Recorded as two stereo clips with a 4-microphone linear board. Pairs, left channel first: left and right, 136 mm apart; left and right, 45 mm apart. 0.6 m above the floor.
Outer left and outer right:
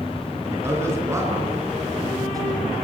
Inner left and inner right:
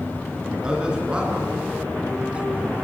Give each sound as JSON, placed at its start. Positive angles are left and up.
{"t": 0.5, "sound": "a man speaking", "side_deg": -20, "distance_m": 7.5}